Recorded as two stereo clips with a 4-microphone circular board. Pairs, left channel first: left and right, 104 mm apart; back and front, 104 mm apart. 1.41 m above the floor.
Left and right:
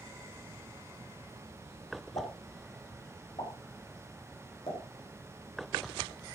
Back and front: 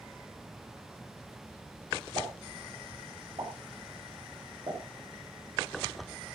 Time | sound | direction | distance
2.1 | a pop | 50° left | 7.5 m